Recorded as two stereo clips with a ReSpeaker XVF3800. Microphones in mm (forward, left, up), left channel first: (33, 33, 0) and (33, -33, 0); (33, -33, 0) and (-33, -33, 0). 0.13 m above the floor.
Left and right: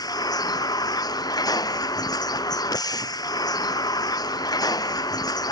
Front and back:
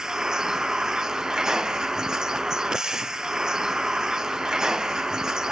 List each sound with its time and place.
0.0 s a vehicle: 100° left